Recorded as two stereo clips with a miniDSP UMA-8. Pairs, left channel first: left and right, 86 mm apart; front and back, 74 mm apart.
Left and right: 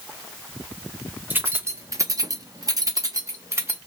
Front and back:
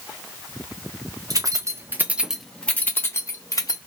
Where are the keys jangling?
155° right, 0.8 m; by 3.8 s 35° right, 1.1 m.